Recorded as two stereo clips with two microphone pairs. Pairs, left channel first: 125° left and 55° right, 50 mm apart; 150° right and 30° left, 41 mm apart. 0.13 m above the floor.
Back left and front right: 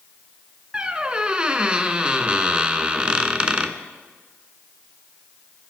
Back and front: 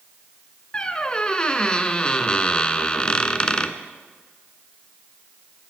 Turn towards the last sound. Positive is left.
turn(degrees=-105)